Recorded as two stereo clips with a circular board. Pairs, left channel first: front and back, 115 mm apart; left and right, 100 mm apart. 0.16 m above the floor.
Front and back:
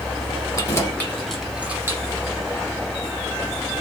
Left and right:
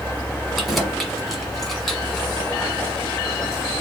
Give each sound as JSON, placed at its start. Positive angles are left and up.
{"t": 0.6, "sound": "keys jangling", "azimuth_deg": 0, "distance_m": 1.2}